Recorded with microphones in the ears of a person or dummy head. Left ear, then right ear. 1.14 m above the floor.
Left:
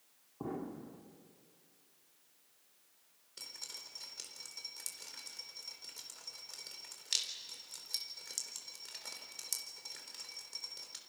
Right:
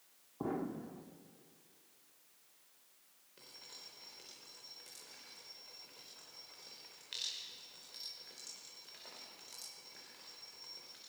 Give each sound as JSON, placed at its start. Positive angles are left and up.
{"t": 0.4, "sound": "an explosion", "side_deg": -10, "distance_m": 1.3}
{"t": 3.4, "sound": "dripping", "side_deg": 75, "distance_m": 4.5}